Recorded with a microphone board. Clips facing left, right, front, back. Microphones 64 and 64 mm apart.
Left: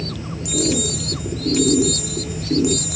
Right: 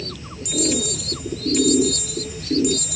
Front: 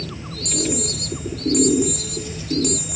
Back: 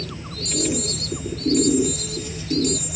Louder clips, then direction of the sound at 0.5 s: Left 2 dB, even; 25° left.